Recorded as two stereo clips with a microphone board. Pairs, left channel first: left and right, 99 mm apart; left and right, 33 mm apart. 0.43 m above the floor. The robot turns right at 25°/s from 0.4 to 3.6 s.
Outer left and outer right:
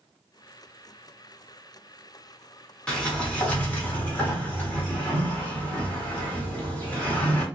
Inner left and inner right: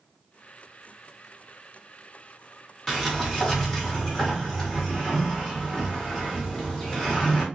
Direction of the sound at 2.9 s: 10° left (ahead or behind).